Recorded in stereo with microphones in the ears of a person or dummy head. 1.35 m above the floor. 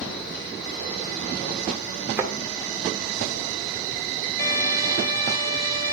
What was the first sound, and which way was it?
A thud, 20° right (ahead or behind).